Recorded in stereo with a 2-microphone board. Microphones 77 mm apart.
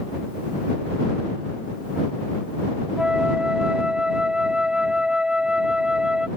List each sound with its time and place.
3.0 s a flute: 10° right (ahead or behind)